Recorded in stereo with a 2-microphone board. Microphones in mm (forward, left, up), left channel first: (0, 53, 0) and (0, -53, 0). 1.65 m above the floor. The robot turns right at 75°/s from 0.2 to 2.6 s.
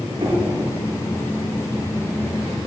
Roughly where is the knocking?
Right.